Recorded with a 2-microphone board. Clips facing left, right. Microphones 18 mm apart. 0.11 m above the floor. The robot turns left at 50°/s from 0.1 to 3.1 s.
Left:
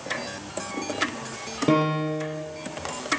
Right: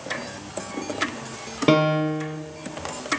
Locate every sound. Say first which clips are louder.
1.7 s a piano: right 3 dB; 45° right, 1.4 m; by 2.4 s 80° right, 1.4 m